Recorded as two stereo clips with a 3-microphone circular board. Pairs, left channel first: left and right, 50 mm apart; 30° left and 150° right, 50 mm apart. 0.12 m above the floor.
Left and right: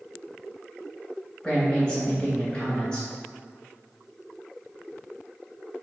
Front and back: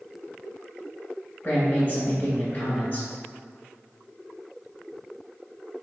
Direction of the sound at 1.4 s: 45° left.